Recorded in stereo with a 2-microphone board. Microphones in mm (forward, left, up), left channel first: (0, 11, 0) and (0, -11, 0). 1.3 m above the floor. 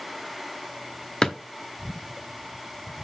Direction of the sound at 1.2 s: 35° left (ahead or behind).